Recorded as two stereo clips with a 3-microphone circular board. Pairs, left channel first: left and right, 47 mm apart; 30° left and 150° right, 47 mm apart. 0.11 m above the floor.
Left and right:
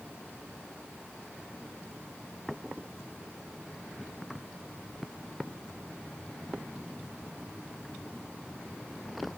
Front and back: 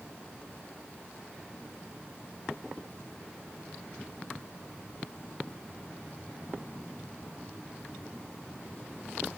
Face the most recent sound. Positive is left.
No sound to turn to.